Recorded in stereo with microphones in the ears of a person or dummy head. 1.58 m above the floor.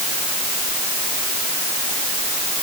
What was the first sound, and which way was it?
Only background noise.